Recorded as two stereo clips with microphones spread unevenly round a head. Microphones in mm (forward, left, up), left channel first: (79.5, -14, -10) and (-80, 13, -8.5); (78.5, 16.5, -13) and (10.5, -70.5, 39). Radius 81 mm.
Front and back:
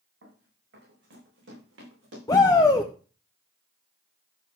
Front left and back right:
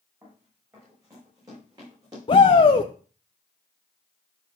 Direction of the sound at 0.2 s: 165° left.